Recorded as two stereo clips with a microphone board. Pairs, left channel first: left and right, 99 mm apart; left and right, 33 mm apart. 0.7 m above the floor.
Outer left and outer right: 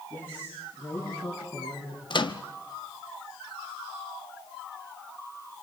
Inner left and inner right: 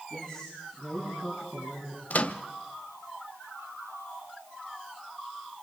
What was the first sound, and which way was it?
A man speaking, 20° left (ahead or behind).